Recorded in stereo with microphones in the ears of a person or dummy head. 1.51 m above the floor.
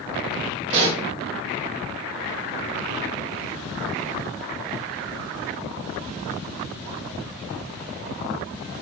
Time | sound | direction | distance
0.7 | a pop | 40° right (ahead or behind) | 3.5 m